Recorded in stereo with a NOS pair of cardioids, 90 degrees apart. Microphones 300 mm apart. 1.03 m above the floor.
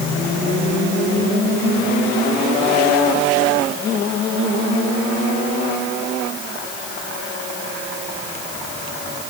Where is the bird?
No bird in this recording.